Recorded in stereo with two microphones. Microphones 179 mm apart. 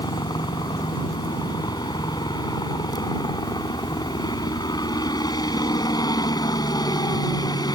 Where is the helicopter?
20° left (ahead or behind).